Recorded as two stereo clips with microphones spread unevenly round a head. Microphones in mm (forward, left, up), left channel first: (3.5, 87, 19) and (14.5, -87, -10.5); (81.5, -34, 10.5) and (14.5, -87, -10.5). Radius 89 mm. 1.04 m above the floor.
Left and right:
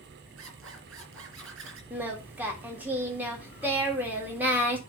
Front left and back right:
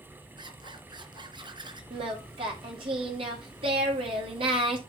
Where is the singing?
165° right, 2 m.